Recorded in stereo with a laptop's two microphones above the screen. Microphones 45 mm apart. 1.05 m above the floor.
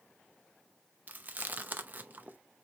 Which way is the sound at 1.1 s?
40° right (ahead or behind).